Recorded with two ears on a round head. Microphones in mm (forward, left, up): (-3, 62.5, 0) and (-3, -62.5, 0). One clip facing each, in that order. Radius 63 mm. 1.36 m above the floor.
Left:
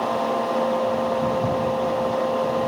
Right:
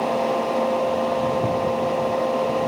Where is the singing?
No singing in this recording.